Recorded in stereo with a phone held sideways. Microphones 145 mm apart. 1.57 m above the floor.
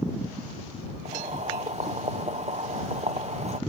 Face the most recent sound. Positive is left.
turn(degrees=-55)  # may be behind; listen again after turning